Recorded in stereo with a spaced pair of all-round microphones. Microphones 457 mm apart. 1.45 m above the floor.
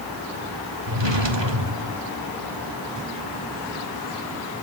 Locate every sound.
0.9 s a drawer: 70° right (ahead or behind), 2.5 m